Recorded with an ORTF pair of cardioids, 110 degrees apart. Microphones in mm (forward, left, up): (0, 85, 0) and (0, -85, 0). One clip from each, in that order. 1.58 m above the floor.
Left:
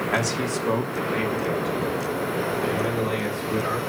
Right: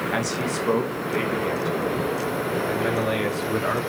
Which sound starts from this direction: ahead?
A man speaking, at 0.1 s.